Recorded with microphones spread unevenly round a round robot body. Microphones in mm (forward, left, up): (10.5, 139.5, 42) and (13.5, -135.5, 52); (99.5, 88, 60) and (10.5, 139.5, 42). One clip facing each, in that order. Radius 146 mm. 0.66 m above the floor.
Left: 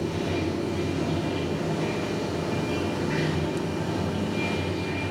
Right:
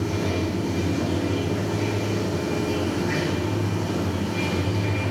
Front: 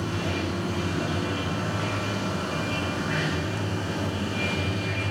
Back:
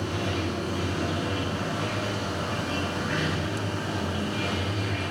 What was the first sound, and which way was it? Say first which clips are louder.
Running water: right 2 dB, even; 110° right.